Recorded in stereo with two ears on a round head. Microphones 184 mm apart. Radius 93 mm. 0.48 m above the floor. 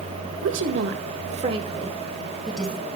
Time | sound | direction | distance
0.4 | a woman speaking | 65° right (ahead or behind) | 1.8 m